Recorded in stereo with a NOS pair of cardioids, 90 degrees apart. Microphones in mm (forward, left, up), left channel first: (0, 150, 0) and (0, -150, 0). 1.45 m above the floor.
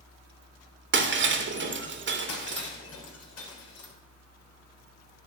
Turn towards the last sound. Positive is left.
turn(degrees=60)